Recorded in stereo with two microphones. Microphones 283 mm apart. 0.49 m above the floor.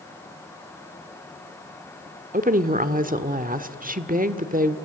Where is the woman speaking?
30° right (ahead or behind), 1.1 m.